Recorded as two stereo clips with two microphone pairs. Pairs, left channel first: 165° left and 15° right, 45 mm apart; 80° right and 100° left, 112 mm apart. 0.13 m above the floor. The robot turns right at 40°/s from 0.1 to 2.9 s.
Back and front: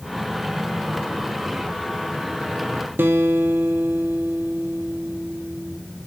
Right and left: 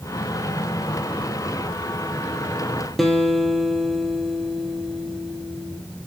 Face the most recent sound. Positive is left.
turn(degrees=10)